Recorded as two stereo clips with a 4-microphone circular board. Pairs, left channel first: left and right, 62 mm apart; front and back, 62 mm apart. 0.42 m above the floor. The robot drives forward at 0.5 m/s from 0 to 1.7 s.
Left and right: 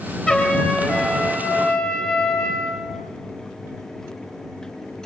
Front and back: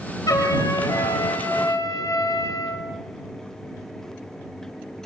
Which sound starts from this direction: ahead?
A trumpet, at 0.3 s.